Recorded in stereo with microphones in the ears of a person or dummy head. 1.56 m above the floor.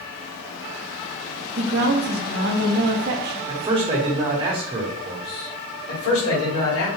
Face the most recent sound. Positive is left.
turn(degrees=80)